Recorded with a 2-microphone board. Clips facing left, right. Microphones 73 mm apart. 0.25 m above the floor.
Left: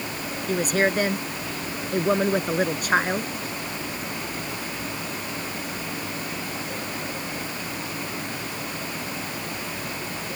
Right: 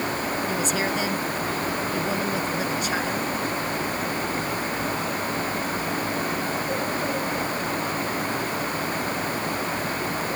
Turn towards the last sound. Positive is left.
turn(degrees=50)  # may be behind; listen again after turning